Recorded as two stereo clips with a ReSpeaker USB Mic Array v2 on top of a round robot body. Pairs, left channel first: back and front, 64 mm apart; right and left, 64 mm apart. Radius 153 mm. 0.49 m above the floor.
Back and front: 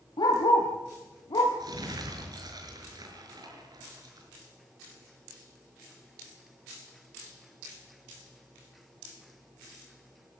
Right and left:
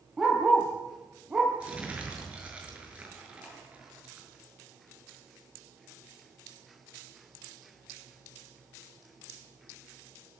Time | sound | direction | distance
0.2 | a dog barking | 175° left | 5 m
1.6 | crumpling | 15° left | 6.5 m